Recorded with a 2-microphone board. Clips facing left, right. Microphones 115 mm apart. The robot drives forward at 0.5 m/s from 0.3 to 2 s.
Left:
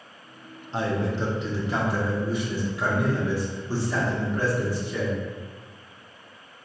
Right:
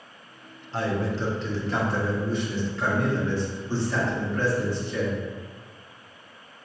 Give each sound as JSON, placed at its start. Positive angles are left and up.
{"t": 0.7, "sound": "a man speaking", "side_deg": 20, "distance_m": 0.7}